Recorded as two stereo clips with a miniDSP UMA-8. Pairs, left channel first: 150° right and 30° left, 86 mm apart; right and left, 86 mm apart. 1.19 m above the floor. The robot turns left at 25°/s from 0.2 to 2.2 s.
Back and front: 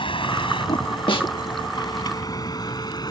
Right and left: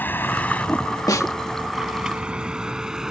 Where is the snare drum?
135° right; by 1.3 s 140° right.